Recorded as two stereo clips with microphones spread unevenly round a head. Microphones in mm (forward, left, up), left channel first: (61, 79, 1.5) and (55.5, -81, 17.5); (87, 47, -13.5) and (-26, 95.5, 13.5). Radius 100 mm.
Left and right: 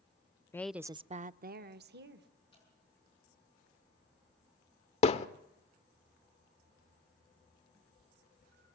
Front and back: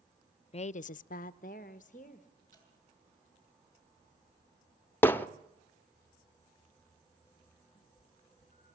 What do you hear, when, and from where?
0.5 s a woman speaking: 15° left, 0.6 m; by 2.4 s 80° right, 1.6 m
2.5 s dripping: 160° left, 9 m
5.0 s hammering: 60° left, 0.8 m
7.7 s a cat meowing: 145° right, 5.5 m